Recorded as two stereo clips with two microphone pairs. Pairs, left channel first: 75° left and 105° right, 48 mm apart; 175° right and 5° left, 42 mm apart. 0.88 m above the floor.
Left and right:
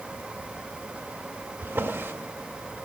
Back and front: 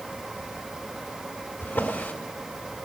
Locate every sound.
1.6 s a drawer: 140° right, 1.7 m